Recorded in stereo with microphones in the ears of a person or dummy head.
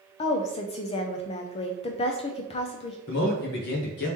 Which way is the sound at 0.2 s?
35° left (ahead or behind).